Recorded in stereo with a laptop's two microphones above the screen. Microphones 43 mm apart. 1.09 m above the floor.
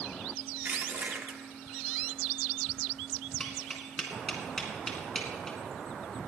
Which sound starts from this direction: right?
Crushing, at 0.7 s.